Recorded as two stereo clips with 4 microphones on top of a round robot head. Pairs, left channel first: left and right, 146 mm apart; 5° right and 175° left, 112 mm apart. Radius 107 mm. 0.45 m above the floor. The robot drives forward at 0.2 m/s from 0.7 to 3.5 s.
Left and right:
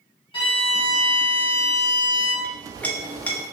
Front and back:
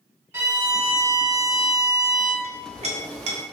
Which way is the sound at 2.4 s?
170° left.